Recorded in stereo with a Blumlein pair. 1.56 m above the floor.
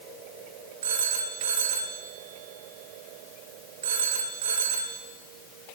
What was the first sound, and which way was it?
A phone ringing, 60° right.